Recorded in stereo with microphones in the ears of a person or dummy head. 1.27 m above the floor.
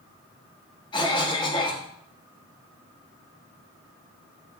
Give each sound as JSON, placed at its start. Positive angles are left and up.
{"t": 0.9, "sound": "a cough", "side_deg": 20, "distance_m": 0.8}